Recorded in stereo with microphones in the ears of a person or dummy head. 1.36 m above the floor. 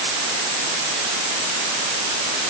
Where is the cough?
I don't hear a cough.